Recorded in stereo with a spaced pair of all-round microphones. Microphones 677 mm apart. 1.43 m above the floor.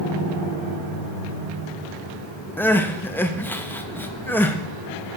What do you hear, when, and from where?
2.6 s crying: 5° left (ahead or behind), 0.7 m